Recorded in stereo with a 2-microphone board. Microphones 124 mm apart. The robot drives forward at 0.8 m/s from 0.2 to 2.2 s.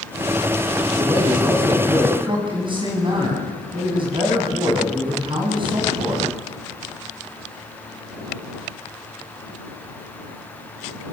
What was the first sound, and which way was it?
A man speaking, 35° right (ahead or behind).